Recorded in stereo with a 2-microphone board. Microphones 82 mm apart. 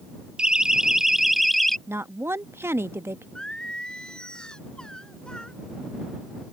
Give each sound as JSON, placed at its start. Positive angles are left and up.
{"t": 0.4, "sound": "a siren", "side_deg": -10}
{"t": 1.9, "sound": "a woman speaking", "side_deg": -30}
{"t": 3.4, "sound": "singing", "side_deg": 10}